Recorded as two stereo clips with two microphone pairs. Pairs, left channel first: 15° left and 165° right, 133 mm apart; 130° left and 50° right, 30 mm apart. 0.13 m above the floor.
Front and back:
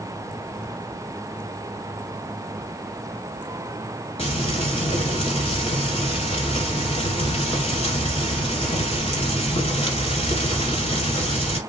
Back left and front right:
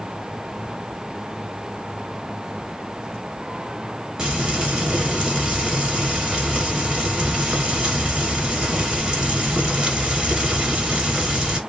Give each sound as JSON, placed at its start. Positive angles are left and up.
{"t": 4.2, "sound": "frying", "azimuth_deg": 5, "distance_m": 1.4}